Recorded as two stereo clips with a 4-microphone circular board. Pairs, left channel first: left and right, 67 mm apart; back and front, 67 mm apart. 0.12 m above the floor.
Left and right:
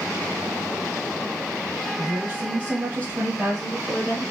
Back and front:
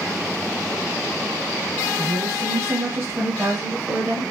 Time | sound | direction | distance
2.0 | a woman speaking | 30° right | 2.5 m